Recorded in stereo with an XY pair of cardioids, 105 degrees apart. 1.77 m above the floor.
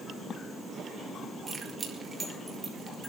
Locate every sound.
1.5 s keys jangling: 20° right, 4 m